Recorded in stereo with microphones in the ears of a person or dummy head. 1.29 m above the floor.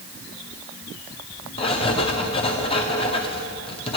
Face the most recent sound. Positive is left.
turn(degrees=30)  # may be behind; listen again after turning